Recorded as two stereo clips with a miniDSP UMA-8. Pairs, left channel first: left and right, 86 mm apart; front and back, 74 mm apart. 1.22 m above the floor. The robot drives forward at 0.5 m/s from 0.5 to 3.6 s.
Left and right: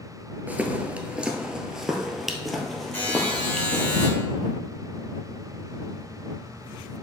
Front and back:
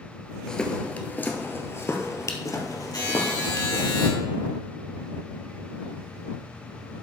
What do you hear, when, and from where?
0.5 s footsteps: 65° right, 1.2 m; by 3.9 s 5° left, 2 m
2.9 s a buzzer: 20° left, 3.5 m